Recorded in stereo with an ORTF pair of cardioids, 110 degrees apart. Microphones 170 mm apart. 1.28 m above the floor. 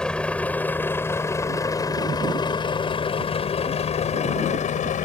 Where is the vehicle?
5° left; by 5.0 s 50° left.